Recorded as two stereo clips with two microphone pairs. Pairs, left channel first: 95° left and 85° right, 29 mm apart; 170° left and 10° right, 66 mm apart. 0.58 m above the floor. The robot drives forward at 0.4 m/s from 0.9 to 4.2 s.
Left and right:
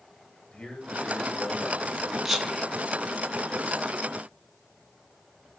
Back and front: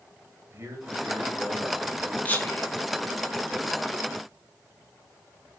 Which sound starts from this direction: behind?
Whispering, at 2.2 s.